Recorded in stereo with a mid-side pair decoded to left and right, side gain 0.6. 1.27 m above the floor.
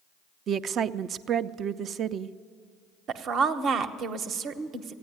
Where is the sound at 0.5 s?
45° right, 0.5 m.